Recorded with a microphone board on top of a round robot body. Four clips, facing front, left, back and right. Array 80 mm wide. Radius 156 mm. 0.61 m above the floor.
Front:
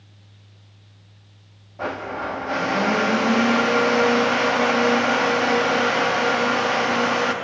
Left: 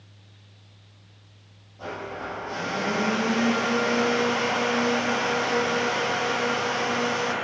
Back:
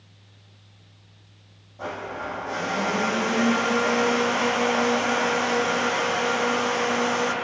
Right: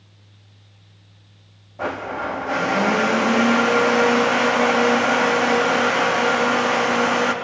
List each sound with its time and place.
1.8 s a blender: 60° right, 0.7 m